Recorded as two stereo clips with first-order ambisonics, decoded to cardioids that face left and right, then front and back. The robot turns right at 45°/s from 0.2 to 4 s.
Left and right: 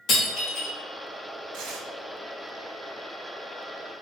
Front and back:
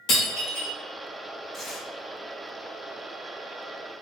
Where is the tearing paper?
95° right, 0.9 m; by 1.9 s 80° right, 0.9 m.